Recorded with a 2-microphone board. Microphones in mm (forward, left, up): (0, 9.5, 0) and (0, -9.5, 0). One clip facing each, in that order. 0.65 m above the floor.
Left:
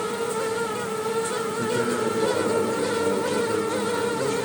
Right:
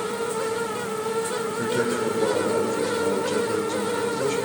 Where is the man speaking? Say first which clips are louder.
Right 1 dB; 30° right (ahead or behind), 2.5 m.